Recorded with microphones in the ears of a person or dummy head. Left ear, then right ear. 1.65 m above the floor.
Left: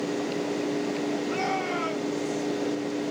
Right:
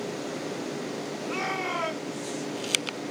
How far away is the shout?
About 7 m.